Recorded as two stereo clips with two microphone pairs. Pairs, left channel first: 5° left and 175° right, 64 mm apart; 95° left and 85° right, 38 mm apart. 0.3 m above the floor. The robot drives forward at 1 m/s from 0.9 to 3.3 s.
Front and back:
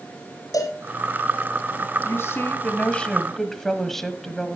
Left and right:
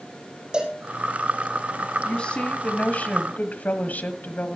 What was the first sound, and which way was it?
A cowbell, 15° right.